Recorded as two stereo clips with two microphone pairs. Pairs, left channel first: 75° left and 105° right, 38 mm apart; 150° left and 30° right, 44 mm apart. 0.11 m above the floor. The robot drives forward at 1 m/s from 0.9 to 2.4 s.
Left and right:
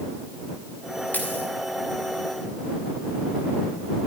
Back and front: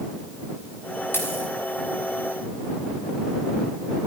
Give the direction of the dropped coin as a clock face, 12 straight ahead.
8 o'clock.